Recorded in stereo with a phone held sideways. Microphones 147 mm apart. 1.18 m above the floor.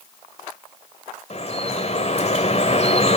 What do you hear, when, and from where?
1.3 s dripping: 45° left (ahead or behind), 1.7 m